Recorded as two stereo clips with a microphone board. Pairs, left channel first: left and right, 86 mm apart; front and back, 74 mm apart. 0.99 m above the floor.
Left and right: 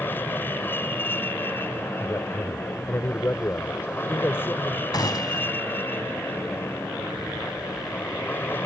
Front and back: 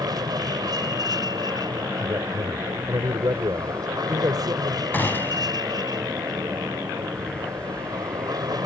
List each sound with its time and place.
0.0 s an aircraft: 155° left
2.0 s a man speaking: 155° left
4.9 s a gunshot: 60° left